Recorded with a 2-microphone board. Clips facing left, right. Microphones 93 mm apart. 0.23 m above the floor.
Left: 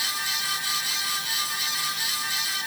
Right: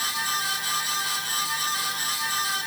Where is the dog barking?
No dog barking in this recording.